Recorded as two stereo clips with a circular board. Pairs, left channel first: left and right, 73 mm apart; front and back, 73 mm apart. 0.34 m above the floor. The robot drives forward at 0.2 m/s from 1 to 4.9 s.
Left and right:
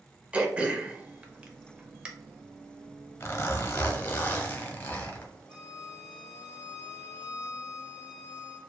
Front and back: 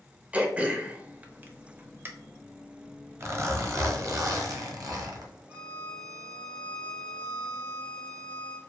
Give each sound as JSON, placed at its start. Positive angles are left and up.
{"t": 0.3, "sound": "throat clearing", "azimuth_deg": -135, "distance_m": 0.7}
{"t": 3.2, "sound": "a zipper", "azimuth_deg": 135, "distance_m": 0.7}
{"t": 5.5, "sound": "a violin", "azimuth_deg": -160, "distance_m": 1.6}